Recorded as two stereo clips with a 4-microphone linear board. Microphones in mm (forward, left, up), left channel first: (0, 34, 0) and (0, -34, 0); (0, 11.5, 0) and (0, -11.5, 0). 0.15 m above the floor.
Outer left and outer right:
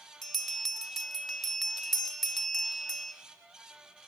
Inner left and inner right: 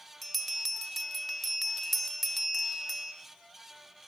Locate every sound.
0.2 s a bell: 5° left (ahead or behind), 1.4 m